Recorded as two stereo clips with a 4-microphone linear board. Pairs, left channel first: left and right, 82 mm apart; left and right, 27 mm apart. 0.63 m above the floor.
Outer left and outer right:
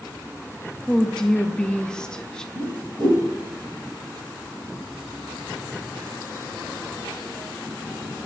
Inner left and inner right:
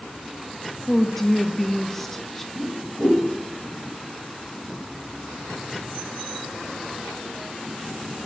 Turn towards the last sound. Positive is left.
turn(degrees=-55)  # may be behind; listen again after turning